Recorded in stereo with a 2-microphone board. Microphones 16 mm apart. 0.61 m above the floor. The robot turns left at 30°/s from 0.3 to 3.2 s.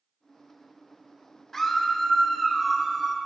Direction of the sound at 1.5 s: 15° left.